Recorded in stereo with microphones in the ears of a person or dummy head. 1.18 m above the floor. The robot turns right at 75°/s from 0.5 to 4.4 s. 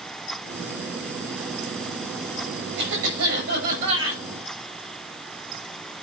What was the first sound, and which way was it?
A cough, 120° right.